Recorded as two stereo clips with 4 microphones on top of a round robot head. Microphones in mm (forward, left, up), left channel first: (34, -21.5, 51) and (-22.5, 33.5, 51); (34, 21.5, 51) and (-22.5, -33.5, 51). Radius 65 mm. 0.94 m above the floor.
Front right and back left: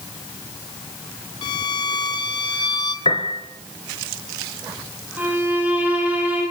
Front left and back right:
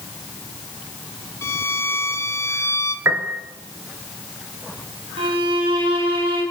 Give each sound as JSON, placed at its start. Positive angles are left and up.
{"t": 1.4, "sound": "a violin", "azimuth_deg": -10, "distance_m": 1.9}
{"t": 3.0, "sound": "a piano", "azimuth_deg": -75, "distance_m": 2.5}
{"t": 5.2, "sound": "a violin", "azimuth_deg": -155, "distance_m": 7.5}